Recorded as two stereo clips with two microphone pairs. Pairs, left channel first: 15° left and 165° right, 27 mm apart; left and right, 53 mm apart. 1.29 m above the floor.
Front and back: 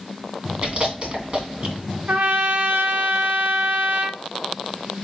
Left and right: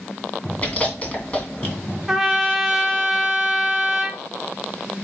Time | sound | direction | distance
0.6 | chewing | 150° left | 2.5 m
2.1 | a trumpet | 175° right | 1.0 m